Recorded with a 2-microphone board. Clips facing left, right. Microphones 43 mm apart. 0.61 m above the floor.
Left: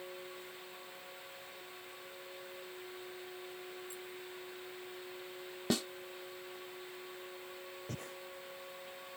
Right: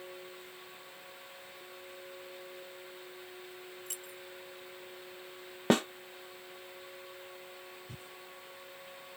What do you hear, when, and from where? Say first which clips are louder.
3.9 s keys jangling: even; 80° right
5.7 s a snare drum: right 8 dB; 45° right (ahead or behind)
7.9 s breathing: left 4 dB; 70° left (ahead or behind)